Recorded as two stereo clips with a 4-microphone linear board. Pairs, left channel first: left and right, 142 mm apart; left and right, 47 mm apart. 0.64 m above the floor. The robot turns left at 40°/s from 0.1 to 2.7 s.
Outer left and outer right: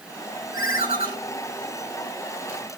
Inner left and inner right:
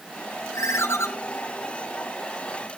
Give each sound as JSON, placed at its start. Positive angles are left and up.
{"t": 0.5, "sound": "a ringtone", "side_deg": 70, "distance_m": 1.4}